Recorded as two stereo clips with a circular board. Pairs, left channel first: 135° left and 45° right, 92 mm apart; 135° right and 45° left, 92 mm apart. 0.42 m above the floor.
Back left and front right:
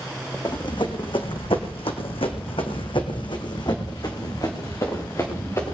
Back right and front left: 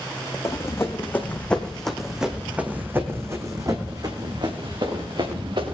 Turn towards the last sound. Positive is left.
turn(degrees=75)